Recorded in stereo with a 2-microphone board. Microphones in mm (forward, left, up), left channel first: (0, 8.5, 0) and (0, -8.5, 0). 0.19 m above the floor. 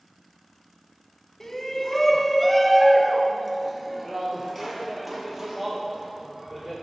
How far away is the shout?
About 1.1 m.